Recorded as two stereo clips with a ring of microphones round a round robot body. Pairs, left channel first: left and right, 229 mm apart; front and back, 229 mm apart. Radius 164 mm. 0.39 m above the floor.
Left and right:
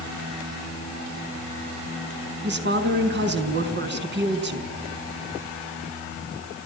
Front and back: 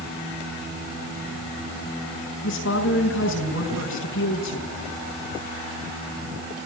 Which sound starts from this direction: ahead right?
A woman speaking, at 2.4 s.